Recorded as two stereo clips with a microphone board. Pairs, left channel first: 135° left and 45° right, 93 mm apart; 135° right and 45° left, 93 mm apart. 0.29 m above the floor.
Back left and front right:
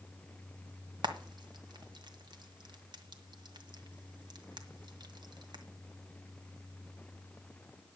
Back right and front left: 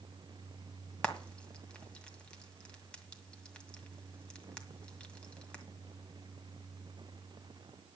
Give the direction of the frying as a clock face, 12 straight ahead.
2 o'clock.